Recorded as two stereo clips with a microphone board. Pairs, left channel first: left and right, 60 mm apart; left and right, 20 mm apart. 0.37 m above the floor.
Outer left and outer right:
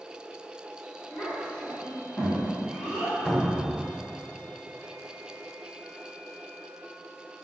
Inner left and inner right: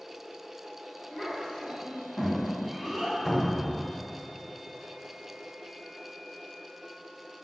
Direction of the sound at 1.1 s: 40° left (ahead or behind).